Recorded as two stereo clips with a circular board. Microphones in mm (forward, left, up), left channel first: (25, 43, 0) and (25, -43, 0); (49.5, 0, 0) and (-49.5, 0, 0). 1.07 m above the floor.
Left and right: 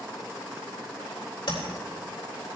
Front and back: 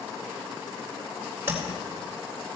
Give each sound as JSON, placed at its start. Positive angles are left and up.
{"t": 1.5, "sound": "tapping", "azimuth_deg": 115, "distance_m": 3.5}